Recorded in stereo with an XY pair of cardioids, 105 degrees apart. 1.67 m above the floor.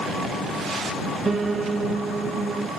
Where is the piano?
30° right.